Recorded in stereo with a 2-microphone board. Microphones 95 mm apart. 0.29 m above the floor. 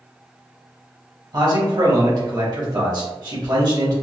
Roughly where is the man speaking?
Right.